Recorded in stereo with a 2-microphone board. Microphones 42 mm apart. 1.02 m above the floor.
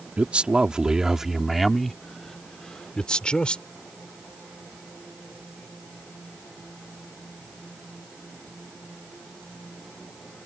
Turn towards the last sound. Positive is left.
turn(degrees=30)  # may be behind; listen again after turning